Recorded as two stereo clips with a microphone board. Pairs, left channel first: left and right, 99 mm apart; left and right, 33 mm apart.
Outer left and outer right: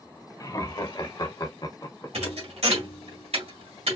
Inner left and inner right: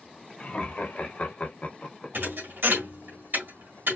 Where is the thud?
80° right, 1.7 m.